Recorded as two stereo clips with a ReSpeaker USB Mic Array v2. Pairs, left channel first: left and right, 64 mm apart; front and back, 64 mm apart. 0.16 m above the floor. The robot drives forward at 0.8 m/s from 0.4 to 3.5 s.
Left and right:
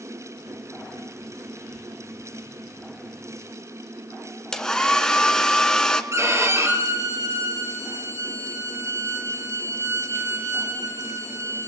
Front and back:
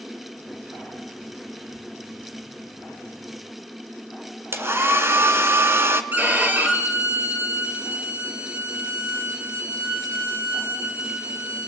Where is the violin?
125° right, 4 m.